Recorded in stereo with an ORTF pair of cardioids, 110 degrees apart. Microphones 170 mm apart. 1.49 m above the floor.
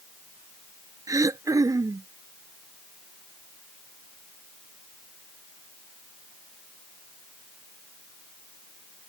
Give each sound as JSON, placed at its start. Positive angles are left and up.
{"t": 1.1, "sound": "throat clearing", "azimuth_deg": -20}